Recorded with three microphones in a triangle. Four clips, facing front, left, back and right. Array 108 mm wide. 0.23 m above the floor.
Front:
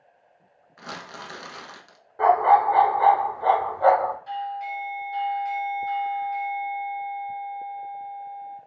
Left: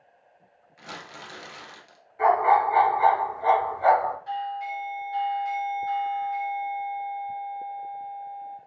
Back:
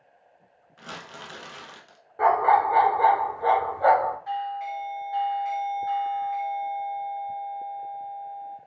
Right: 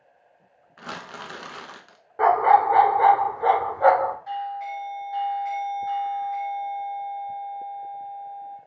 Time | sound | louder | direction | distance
0.8 | crumpling | right 5 dB, front 3 dB | 70° right | 0.8 m
2.2 | a dog barking | right 3 dB, front 2 dB | 90° right | 1.2 m
4.3 | a doorbell | right 1 dB, back 1 dB | 145° right | 1.7 m